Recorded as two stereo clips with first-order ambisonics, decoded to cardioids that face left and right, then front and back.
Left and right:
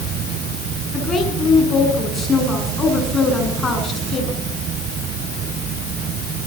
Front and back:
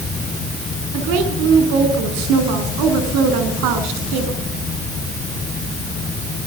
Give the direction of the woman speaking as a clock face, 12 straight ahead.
7 o'clock.